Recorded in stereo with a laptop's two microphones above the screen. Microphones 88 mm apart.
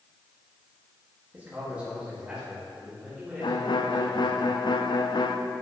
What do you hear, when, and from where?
1.3 s a man speaking: 20° right (ahead or behind), 2.0 m; by 4.4 s 5° right (ahead or behind), 4.5 m
3.4 s a violin: 60° left (ahead or behind), 0.5 m